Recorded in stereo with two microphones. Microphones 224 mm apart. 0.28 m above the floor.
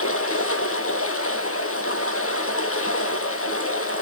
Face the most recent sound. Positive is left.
turn(degrees=80)